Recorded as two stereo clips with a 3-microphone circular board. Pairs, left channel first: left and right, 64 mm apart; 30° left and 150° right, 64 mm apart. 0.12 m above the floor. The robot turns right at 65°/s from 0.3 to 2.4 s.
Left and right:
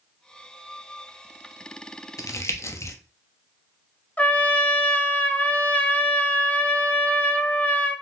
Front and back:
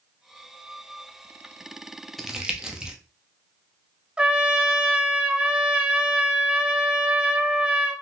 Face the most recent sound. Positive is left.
turn(degrees=145)